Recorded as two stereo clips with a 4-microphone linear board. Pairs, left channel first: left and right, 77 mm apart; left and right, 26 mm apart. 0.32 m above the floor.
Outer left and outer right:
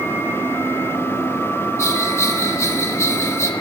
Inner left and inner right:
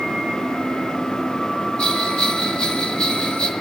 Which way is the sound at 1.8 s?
40° left (ahead or behind).